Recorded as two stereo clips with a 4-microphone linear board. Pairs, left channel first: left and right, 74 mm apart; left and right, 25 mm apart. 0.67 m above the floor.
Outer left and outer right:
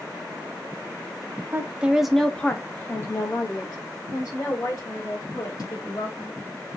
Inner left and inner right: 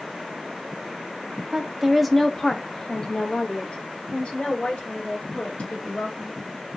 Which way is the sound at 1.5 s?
25° right (ahead or behind).